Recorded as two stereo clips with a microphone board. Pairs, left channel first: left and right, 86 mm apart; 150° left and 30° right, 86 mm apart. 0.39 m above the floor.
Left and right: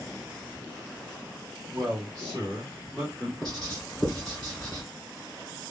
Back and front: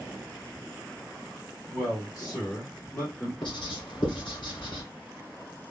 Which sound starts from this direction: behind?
Writing, at 3.4 s.